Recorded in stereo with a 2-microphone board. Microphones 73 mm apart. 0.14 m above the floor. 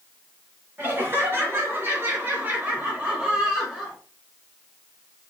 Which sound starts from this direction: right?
Laughter, at 0.8 s.